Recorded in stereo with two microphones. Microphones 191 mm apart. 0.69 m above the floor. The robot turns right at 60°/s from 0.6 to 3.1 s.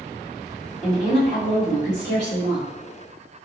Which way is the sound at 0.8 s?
5° right.